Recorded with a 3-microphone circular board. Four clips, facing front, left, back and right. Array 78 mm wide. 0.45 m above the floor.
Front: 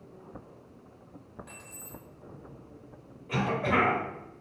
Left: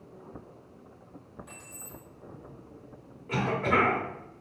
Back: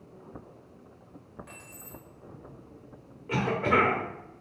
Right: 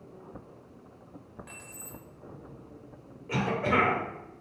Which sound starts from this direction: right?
Keys jangling, at 1.5 s.